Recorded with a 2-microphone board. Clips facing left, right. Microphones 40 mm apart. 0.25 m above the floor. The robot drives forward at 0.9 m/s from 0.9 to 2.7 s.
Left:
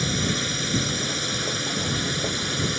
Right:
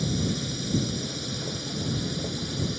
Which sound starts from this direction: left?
A drone, at 0.0 s.